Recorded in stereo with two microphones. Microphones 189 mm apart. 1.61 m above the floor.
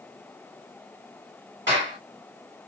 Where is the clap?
80° right, 2.5 m.